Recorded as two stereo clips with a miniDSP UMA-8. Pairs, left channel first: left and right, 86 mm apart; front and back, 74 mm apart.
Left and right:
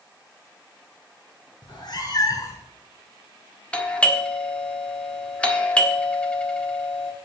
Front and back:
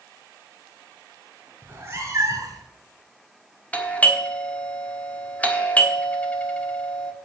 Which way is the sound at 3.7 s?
35° left.